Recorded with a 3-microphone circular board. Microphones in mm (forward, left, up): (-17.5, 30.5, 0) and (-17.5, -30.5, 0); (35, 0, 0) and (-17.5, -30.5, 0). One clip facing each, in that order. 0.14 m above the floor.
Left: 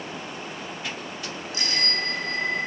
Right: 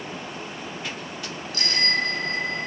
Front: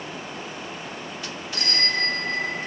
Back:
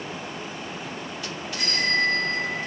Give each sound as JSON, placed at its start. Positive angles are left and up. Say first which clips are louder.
{"t": 1.5, "sound": "a bicycle bell", "louder": "right 4 dB, back 2 dB", "azimuth_deg": 25, "distance_m": 4.5}